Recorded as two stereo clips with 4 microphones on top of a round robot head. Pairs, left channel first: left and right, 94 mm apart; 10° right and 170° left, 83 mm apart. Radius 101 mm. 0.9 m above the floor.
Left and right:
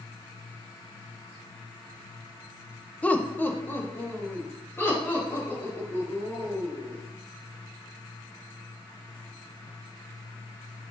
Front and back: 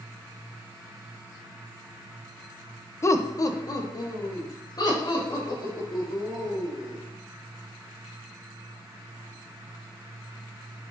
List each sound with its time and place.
3.0 s laughter: 25° left, 0.7 m